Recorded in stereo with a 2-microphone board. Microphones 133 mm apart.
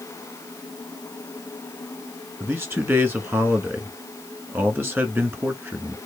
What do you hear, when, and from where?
2.4 s a man speaking: 15° right (ahead or behind), 1.4 m